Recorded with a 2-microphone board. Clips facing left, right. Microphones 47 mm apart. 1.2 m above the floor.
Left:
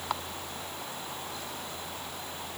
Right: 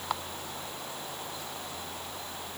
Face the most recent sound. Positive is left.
No sound to turn to.